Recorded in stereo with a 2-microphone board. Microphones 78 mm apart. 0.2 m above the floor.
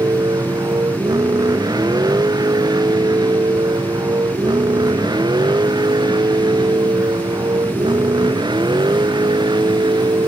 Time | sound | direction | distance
0.0 | a vehicle | 60° right (ahead or behind) | ?